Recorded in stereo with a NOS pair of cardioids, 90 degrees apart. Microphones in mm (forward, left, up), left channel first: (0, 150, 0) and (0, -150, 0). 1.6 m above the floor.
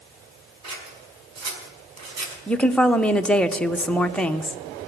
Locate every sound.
0.6 s scissors: 65° right, 5 m
2.5 s a woman speaking: 5° left, 0.9 m